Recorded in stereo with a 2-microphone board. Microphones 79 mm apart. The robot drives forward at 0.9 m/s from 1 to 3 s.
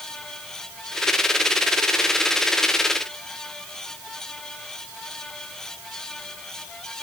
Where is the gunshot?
No gunshot in this recording.